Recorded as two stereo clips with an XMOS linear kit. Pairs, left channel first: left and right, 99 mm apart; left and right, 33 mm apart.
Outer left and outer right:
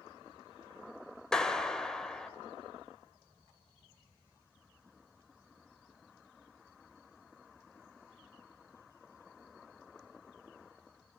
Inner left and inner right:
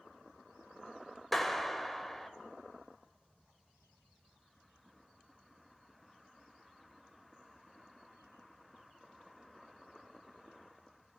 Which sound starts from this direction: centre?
A clap, at 1.3 s.